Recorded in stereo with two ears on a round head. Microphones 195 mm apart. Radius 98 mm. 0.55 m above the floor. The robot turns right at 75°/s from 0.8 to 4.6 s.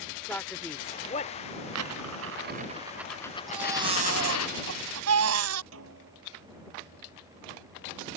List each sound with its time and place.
0.3 s a man speaking: 10° left (ahead or behind); by 1.3 s 40° left (ahead or behind)
1.8 s a dropped coin: 100° right; by 4.5 s 105° left
3.5 s a baby crying: straight behind; by 5.6 s 100° right
5.7 s a snare drum: 70° right (ahead or behind)